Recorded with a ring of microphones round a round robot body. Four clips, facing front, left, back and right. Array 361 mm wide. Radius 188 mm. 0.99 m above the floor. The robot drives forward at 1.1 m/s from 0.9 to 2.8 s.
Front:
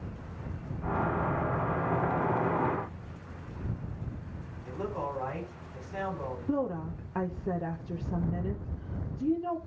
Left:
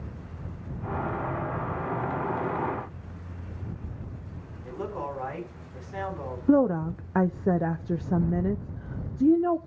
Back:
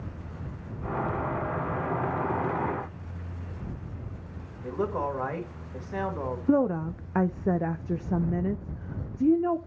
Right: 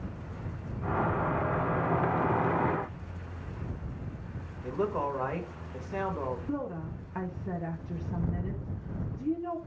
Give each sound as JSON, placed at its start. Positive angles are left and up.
{"t": 4.6, "sound": "a man speaking", "azimuth_deg": -145, "distance_m": 3.5}
{"t": 6.5, "sound": "a woman speaking", "azimuth_deg": 120, "distance_m": 0.5}